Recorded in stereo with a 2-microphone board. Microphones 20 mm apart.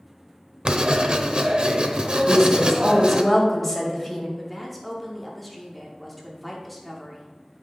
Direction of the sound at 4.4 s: Centre (ahead or behind).